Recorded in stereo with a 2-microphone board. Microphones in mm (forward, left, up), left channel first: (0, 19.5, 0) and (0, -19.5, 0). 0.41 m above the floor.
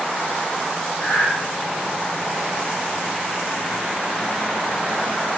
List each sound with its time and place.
1.0 s breathing: 60° left (ahead or behind), 2.5 m